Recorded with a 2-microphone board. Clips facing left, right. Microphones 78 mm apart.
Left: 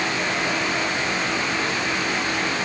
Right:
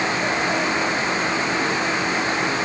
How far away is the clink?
I don't hear a clink.